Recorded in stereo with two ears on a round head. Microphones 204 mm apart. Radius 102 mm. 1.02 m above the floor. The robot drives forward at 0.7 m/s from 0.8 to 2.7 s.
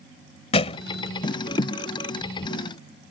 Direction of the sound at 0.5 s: 25° left (ahead or behind).